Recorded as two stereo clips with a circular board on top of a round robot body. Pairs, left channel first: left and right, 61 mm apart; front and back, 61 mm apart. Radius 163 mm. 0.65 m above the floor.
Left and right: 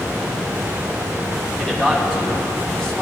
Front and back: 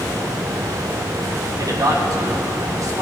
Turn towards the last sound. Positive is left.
turn(degrees=170)